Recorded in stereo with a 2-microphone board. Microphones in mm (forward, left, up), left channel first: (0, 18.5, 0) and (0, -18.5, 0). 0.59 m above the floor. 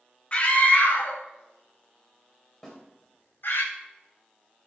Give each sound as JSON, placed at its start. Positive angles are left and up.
{"t": 0.3, "sound": "a scream", "side_deg": 35, "distance_m": 1.5}
{"t": 2.6, "sound": "a snare drum", "side_deg": 10, "distance_m": 3.5}